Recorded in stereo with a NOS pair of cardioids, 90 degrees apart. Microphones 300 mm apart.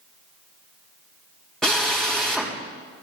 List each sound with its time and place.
1.6 s a drill: straight ahead, 4.5 m